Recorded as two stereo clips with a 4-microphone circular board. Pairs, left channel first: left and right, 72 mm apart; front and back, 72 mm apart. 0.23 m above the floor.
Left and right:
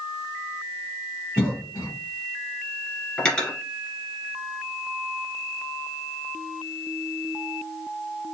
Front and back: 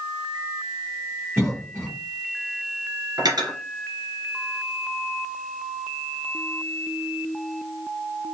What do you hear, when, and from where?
1.4 s a cough: 140° left, 2 m
3.2 s cutlery clinking: 165° left, 2 m